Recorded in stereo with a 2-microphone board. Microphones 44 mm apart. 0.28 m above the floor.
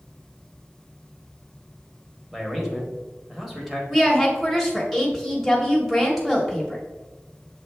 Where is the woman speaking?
5° right (ahead or behind), 0.9 m.